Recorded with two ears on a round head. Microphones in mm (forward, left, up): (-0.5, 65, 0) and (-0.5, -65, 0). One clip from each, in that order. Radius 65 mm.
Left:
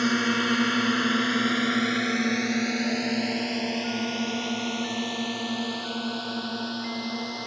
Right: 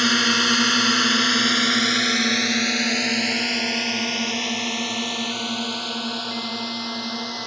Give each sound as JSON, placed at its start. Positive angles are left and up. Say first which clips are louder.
{"t": 0.0, "sound": "a drone", "louder": "right 7 dB", "side_deg": -60}